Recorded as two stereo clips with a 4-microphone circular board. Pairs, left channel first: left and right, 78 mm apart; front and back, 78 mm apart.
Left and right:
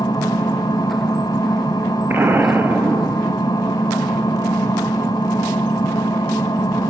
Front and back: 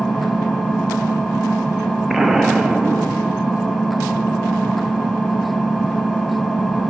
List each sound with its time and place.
0.0 s an engine running: 95° left, 1.0 m
2.1 s an explosion: 105° right, 0.5 m